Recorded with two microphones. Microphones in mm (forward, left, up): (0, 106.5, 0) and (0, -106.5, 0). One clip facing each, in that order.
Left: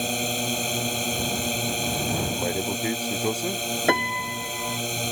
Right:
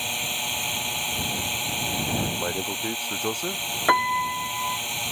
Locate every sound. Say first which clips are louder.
0.0 s a drone: left 9 dB; 50° left (ahead or behind)
2.3 s a man speaking: left 3 dB; 10° left (ahead or behind)
3.9 s a piano: left 1 dB; 25° left (ahead or behind)